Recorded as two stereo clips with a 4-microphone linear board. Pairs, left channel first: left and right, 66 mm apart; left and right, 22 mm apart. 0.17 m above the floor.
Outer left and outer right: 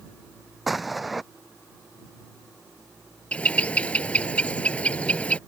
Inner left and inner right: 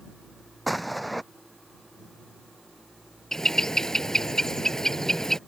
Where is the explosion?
Centre (ahead or behind).